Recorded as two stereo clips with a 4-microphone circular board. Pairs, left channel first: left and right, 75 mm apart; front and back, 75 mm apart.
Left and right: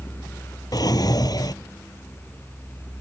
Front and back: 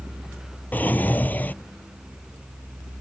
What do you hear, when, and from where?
0.7 s a drawer: 65° left